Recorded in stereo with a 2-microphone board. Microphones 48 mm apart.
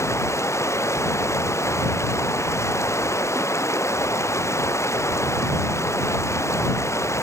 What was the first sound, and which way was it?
Running water, 75° left (ahead or behind).